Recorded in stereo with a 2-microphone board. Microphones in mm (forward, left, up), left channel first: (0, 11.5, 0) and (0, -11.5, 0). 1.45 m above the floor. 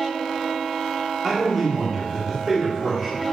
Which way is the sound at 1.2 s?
5° left (ahead or behind).